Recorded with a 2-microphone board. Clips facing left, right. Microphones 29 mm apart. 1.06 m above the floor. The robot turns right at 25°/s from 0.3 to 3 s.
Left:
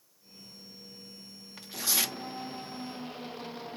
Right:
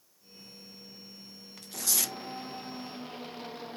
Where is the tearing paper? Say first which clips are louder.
Left 2 dB; 15° left (ahead or behind), 0.6 m; by 2.2 s 25° left (ahead or behind), 0.6 m.